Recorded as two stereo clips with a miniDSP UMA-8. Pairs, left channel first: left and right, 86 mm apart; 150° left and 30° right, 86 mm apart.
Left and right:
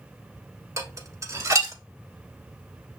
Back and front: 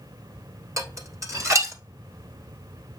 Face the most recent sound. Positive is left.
turn(degrees=-60)